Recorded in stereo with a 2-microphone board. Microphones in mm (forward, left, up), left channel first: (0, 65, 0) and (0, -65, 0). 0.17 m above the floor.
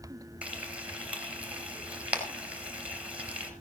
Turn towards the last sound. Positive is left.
turn(degrees=-10)  # may be behind; listen again after turning